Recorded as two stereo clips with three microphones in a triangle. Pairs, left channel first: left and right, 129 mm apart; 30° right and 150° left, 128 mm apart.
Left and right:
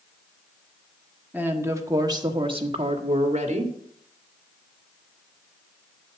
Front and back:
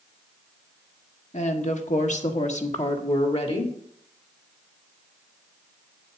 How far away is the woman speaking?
About 1.4 m.